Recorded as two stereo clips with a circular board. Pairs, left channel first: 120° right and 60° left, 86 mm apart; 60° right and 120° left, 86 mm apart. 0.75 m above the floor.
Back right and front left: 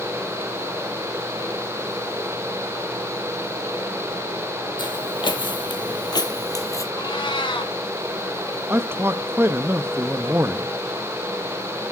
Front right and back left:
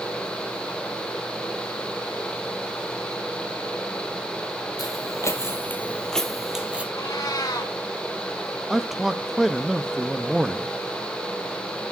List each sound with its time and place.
4.8 s footsteps: 100° right, 1.6 m; by 6.8 s 165° right, 1.4 m
7.0 s a cat meowing: 105° right, 2.5 m
8.7 s a man speaking: 35° left, 0.6 m